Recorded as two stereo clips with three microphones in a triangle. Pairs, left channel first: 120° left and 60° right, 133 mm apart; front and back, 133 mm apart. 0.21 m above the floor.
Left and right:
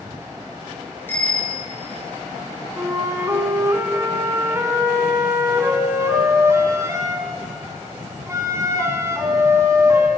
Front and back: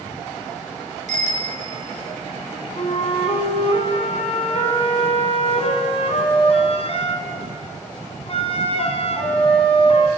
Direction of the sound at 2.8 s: Straight ahead.